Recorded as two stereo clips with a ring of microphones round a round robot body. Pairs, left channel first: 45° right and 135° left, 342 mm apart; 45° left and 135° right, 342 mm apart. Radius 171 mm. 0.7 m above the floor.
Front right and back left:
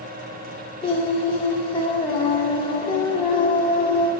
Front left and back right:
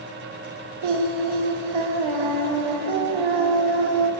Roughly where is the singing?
Behind right.